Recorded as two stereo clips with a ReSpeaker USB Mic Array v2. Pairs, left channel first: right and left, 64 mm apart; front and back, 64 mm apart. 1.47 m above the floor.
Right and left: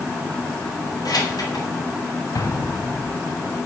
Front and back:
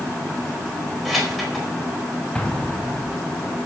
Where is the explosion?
75° right, 1.6 m.